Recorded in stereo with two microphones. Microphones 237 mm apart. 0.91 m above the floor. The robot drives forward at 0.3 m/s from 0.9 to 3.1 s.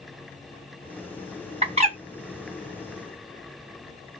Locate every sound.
1.6 s a bird: 25° right (ahead or behind), 1.2 m; by 2.0 s 30° right (ahead or behind), 1.1 m